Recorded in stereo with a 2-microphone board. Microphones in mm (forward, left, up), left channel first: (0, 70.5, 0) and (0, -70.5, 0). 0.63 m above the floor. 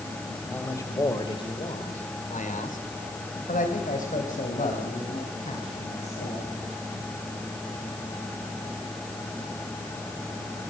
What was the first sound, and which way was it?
A man speaking, 15° left (ahead or behind).